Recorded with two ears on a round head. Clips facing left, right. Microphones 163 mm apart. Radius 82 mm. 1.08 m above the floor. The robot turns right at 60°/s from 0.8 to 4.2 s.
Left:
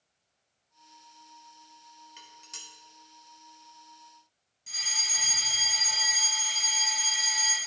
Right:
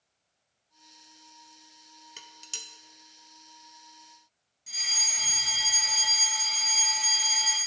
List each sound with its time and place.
2.2 s dishes clattering: 60° right (ahead or behind), 0.7 m; by 2.7 s 30° right (ahead or behind), 0.7 m
4.7 s a fire alarm: centre (ahead or behind), 2 m